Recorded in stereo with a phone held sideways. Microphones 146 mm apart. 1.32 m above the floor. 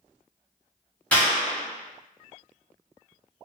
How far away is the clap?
About 0.9 m.